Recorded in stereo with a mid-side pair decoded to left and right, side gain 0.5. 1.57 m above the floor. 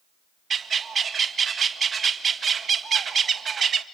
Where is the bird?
40° right, 1.7 m.